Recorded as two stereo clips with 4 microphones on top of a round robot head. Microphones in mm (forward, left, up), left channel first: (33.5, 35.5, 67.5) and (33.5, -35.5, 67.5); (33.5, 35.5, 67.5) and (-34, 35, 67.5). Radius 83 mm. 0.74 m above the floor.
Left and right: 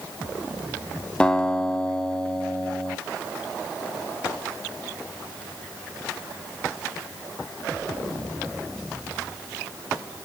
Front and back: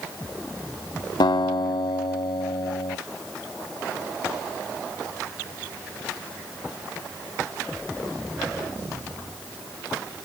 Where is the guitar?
10° left, 0.6 m.